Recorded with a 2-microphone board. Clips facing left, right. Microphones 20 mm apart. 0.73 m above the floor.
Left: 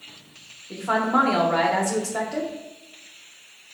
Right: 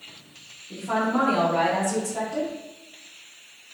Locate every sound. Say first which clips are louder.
0.7 s a woman speaking: left 3 dB; 70° left (ahead or behind), 1.2 m